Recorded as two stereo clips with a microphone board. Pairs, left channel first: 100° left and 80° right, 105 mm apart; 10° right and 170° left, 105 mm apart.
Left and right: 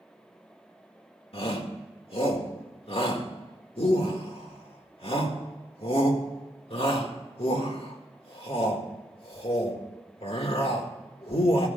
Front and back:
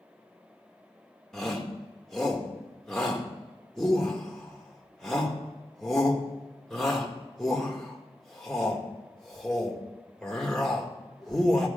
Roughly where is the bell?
No bell in this recording.